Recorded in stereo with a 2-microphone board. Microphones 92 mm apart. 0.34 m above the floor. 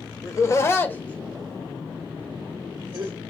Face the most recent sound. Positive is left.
turn(degrees=-30)  # may be behind; listen again after turning